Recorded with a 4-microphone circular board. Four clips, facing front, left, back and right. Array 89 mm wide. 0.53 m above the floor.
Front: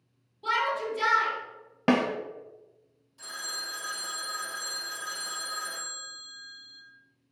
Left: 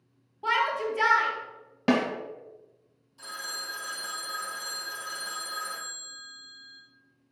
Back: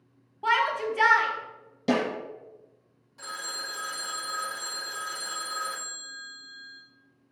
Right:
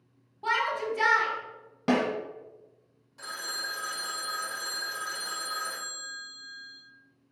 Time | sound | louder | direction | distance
0.4 | a shout | left 2 dB, back 3 dB | 175° left | 0.9 m
1.9 | a snare drum | left 1 dB, front 2 dB | 10° left | 0.9 m
3.2 | a phone ringing | right 2 dB, back 3 dB | 130° right | 0.9 m